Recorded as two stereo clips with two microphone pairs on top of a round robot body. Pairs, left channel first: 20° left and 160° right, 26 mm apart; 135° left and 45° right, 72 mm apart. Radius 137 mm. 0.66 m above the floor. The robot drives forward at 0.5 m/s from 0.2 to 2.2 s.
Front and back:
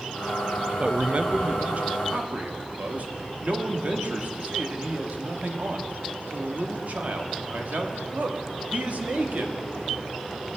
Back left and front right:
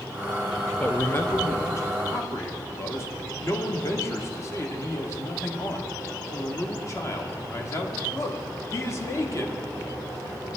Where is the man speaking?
150° right, 0.6 m; by 9.6 s 170° right, 1.1 m.